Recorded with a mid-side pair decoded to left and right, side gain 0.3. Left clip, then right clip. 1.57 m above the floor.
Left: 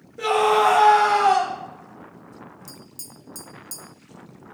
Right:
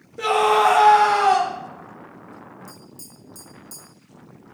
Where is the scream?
35° right, 1.4 m.